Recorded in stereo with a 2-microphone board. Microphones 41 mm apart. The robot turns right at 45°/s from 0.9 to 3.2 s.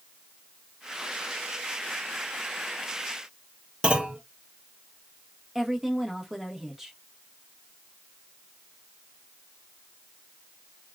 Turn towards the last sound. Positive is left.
turn(degrees=-5)  # may be behind; listen again after turning